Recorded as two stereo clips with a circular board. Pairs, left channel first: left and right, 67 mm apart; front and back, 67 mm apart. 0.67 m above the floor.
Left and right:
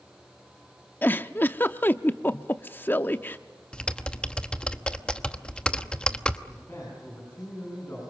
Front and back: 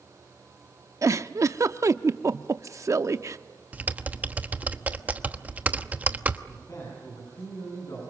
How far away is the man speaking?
About 7.5 m.